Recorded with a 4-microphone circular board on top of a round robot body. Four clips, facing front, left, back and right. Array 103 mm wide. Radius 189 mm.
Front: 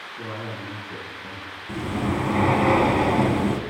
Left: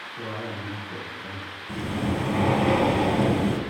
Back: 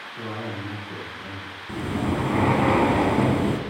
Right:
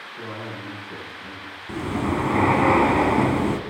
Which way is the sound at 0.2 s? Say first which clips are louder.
Left 1 dB, back 2 dB; 170° left.